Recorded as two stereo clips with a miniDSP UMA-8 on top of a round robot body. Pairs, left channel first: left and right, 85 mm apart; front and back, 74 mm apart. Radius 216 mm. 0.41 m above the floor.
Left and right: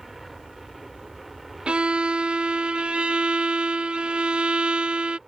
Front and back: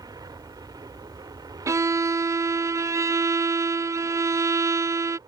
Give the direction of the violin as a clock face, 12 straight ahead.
5 o'clock.